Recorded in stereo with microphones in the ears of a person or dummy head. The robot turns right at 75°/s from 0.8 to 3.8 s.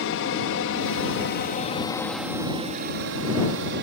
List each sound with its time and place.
0.0 s an aircraft: 65° left (ahead or behind); by 3.8 s 50° right (ahead or behind)